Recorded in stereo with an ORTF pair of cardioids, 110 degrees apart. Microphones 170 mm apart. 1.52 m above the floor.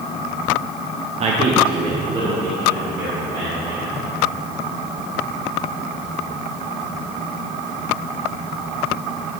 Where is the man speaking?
40° right, 1.0 m; by 4.0 s 25° right, 3.5 m.